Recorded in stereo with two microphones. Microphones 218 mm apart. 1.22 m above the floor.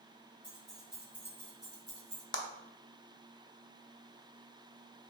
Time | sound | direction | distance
0.4 | keys jangling | 5° left (ahead or behind) | 2.0 m
2.3 | a clap | 55° left (ahead or behind) | 0.5 m